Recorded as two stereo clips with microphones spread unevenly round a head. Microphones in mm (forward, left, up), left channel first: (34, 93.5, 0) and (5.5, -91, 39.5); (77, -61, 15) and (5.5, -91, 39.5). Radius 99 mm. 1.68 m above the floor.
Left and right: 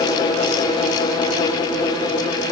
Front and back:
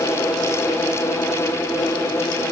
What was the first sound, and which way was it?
Only background noise.